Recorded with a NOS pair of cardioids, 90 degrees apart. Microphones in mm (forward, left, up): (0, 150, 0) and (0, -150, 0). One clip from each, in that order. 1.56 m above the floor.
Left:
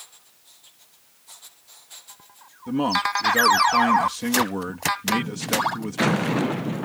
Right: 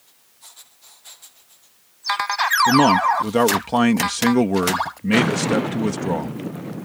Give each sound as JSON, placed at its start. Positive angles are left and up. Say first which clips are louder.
{"t": 2.7, "sound": "a man speaking", "louder": "right 4 dB", "azimuth_deg": -50}